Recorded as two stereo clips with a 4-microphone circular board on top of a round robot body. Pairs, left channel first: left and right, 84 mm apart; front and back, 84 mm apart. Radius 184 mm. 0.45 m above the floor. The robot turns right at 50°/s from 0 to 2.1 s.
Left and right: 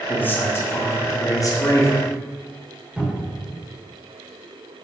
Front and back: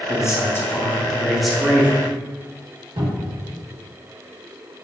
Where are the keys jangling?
No keys jangling in this recording.